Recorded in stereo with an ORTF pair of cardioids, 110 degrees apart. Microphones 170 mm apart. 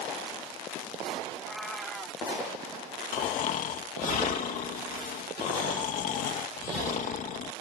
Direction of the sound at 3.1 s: 55° left.